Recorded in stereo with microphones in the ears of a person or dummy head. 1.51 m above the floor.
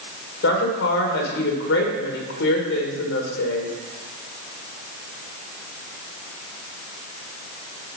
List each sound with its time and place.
0.4 s a woman speaking: 60° left (ahead or behind), 2 m